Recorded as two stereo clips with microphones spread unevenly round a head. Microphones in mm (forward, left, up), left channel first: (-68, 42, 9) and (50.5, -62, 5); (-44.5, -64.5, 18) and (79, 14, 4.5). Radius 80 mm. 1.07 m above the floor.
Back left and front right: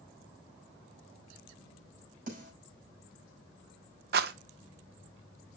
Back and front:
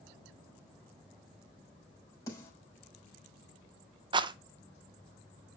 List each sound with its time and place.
2.3 s a snare drum: 80° right, 5.5 m
4.1 s a rattle: 20° right, 0.6 m